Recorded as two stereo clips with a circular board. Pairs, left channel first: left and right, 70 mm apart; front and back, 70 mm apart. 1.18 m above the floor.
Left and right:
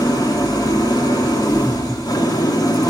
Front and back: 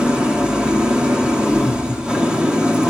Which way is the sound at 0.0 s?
105° left.